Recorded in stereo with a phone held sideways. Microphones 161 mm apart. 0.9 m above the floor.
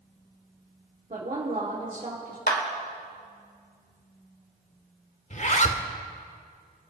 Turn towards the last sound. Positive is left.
turn(degrees=50)  # may be behind; listen again after turning